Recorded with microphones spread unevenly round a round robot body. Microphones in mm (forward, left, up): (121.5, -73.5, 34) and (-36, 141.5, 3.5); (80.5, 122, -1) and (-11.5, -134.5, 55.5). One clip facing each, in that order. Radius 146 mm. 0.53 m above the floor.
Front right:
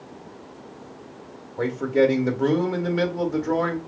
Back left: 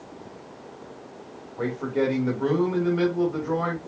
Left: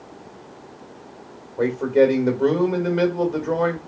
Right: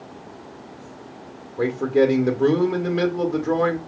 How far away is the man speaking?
About 1.8 m.